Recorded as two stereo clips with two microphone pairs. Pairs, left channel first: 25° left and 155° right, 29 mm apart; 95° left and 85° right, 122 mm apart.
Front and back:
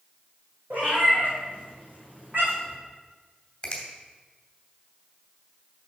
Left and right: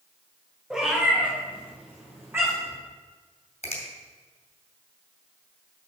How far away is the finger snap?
About 2.5 m.